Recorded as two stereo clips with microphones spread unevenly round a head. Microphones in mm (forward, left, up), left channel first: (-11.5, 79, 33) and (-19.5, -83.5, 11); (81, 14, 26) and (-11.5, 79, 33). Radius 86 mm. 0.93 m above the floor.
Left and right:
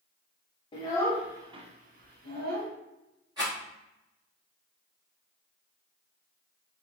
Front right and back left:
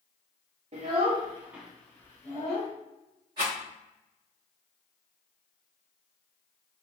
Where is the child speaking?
150° left, 0.6 m; by 2.7 s 95° right, 1.1 m.